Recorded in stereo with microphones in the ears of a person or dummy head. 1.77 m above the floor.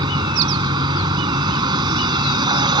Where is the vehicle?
30° right (ahead or behind).